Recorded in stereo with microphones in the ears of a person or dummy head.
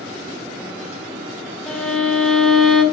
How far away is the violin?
About 2.5 m.